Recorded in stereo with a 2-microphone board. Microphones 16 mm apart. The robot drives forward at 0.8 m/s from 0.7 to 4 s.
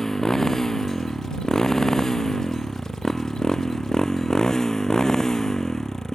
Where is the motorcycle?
30° left (ahead or behind); by 6.2 s 35° left (ahead or behind).